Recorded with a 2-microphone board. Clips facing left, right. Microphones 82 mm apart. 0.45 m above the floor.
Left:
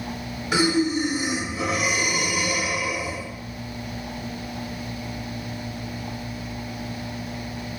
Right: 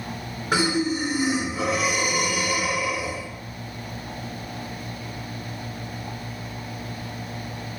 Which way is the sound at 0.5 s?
45° right (ahead or behind).